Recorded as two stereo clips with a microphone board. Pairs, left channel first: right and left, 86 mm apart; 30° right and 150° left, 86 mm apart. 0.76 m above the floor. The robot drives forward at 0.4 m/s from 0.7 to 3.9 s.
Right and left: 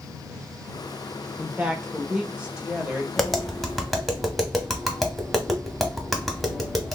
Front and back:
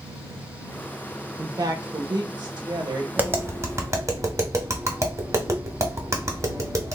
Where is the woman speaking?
155° left, 0.5 m; by 3.1 s 170° left, 1.1 m.